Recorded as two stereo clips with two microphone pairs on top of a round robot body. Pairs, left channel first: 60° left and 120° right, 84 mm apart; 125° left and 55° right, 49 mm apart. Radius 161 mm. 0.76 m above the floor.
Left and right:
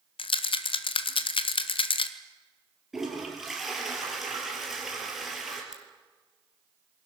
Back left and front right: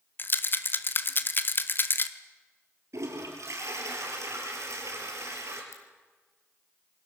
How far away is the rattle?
About 0.9 m.